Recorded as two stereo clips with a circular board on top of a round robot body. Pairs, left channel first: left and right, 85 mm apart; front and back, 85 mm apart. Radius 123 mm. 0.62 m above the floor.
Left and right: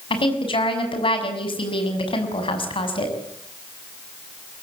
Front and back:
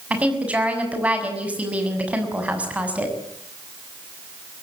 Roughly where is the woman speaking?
Left.